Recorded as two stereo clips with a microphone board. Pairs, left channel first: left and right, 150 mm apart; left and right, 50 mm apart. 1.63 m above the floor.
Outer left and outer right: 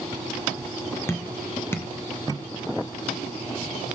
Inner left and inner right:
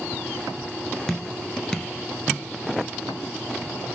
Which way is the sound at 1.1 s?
15° left (ahead or behind).